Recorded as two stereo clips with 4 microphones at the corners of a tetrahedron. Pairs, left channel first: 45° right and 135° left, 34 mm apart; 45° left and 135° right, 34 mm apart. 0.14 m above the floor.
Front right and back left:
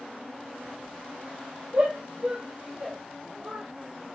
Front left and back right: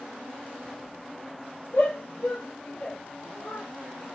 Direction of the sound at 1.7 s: 80° left.